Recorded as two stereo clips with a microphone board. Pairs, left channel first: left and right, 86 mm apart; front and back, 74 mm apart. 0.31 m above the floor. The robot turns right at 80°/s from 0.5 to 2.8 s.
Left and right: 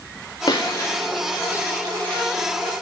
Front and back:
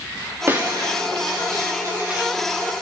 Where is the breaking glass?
125° left, 5.5 m; by 2.7 s 60° right, 5.5 m.